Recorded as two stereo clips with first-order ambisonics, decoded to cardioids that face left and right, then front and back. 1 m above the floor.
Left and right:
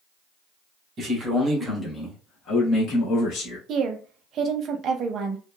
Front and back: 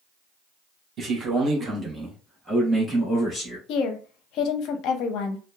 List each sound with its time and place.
1.0 s a man speaking: 130° right, 1.0 m; by 3.6 s 80° left, 1.3 m
3.7 s a woman speaking: 35° right, 0.5 m